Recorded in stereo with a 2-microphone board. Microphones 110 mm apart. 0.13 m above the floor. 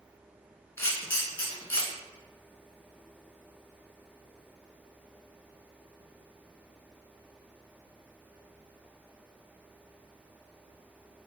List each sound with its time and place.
0.8 s a camera shutter: 20° left (ahead or behind), 1.7 m